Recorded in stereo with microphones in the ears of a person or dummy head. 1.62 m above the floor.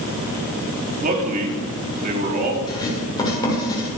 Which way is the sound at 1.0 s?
50° right (ahead or behind).